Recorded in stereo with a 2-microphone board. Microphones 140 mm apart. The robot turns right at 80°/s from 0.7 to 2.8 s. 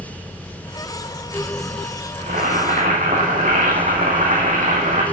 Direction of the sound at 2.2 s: 115° right.